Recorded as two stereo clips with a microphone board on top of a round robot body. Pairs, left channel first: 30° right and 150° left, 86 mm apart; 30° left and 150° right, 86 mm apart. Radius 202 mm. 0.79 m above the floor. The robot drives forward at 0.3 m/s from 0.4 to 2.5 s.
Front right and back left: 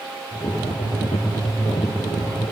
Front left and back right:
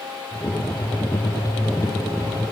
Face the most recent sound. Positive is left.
No sound to turn to.